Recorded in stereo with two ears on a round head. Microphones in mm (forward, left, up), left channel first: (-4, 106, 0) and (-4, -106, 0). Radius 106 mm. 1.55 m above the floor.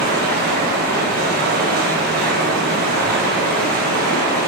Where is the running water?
40° right (ahead or behind), 0.9 m.